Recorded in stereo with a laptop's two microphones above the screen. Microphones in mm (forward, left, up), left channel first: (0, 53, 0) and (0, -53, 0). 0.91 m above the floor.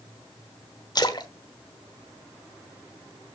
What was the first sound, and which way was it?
A splash, 40° left (ahead or behind).